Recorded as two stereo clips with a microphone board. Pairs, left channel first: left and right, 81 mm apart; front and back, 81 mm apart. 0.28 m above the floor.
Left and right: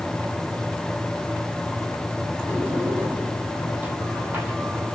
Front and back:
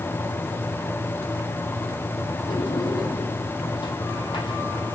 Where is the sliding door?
20° right, 2.5 m.